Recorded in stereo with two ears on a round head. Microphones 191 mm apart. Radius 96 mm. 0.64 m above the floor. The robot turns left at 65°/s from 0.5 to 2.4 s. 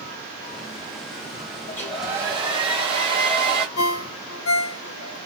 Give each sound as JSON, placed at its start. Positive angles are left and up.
{"t": 1.7, "sound": "a hair dryer", "azimuth_deg": 20, "distance_m": 1.3}
{"t": 3.8, "sound": "a ringtone", "side_deg": 65, "distance_m": 0.8}